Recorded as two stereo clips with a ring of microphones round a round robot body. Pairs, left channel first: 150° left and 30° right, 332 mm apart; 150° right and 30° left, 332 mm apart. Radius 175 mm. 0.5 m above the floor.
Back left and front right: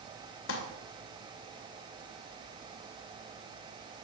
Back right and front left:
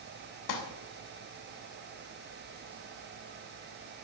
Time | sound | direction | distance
0.5 | crumpling | 165° right | 2.5 m